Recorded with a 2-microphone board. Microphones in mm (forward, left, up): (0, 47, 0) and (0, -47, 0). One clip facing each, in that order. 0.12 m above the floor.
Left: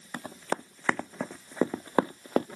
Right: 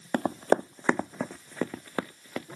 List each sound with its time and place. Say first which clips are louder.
0.1 s running footsteps: right 9 dB; 55° right (ahead or behind); by 2.5 s 45° left (ahead or behind)